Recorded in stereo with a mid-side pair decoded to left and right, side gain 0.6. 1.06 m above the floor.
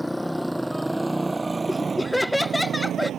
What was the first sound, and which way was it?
A motorcycle, 5° left.